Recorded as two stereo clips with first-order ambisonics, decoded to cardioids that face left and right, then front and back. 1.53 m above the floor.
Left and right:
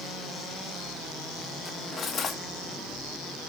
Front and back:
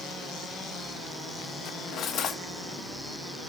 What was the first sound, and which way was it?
Cutlery clinking, 35° left.